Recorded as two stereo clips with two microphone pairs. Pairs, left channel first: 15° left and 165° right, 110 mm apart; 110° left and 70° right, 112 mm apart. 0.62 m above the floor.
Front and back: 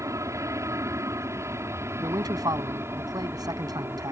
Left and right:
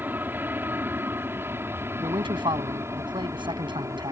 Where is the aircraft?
130° right; by 4.1 s 110° right.